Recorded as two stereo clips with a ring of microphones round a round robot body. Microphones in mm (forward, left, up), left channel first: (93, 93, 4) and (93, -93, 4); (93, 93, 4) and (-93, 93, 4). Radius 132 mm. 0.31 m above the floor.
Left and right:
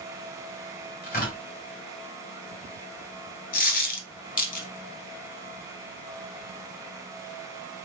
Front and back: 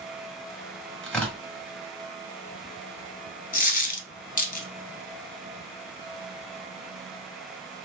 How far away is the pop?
No pop in this recording.